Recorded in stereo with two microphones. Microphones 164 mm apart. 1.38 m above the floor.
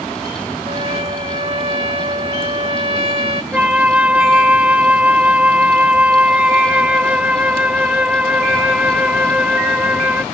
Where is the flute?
10° right (ahead or behind).